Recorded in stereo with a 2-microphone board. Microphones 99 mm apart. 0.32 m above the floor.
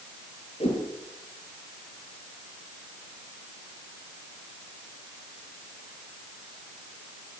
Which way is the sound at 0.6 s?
80° left.